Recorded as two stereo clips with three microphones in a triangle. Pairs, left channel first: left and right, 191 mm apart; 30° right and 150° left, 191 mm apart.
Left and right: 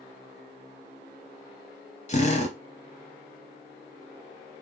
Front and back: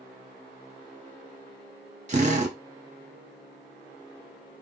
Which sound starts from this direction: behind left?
A drill, at 2.1 s.